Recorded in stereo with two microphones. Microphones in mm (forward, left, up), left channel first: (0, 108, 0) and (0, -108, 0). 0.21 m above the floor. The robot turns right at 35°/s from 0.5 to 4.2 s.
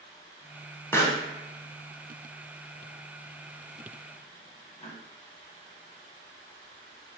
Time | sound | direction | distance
0.9 | a pop | 15° left (ahead or behind) | 0.5 m